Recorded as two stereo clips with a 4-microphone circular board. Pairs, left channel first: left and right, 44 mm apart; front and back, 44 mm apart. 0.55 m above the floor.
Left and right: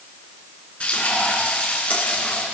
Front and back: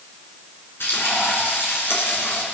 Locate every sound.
0.8 s frying: 25° left, 3.5 m